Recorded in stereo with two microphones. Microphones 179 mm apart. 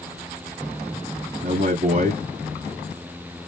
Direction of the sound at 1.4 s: 40° right (ahead or behind).